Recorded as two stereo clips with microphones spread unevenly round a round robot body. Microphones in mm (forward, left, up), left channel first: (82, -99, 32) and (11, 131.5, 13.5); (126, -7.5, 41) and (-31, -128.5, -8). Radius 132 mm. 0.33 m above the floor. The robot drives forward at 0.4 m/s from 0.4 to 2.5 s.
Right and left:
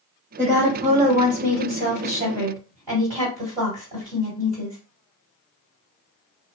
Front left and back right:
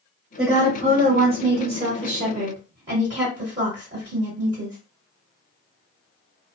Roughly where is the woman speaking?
Behind.